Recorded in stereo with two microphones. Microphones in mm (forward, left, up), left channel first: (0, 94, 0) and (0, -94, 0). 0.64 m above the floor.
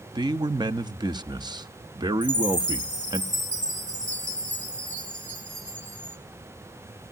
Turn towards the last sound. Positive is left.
turn(degrees=-40)  # may be behind; listen again after turning